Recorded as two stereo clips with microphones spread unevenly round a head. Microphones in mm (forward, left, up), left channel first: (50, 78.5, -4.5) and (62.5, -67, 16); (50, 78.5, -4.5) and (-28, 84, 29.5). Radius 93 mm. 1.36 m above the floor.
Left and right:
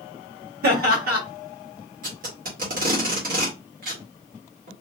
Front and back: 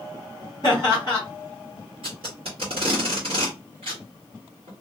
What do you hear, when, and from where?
0.6 s laughter: 70° right, 1.7 m
2.0 s tape being pulled: 130° right, 1.3 m